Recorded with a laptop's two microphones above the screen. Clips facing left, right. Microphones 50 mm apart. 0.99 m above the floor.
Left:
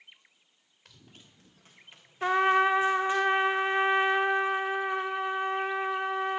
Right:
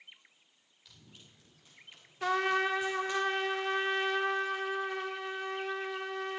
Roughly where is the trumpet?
Left.